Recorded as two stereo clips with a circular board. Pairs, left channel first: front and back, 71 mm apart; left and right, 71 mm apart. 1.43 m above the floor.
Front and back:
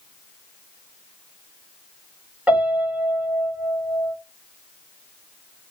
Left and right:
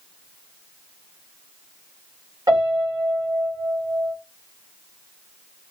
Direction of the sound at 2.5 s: 105° right.